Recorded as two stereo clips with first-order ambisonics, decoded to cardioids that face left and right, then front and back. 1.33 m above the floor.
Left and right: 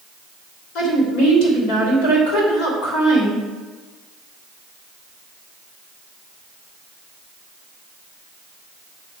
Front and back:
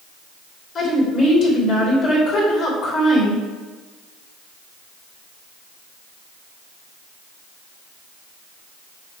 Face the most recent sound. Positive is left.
turn(degrees=65)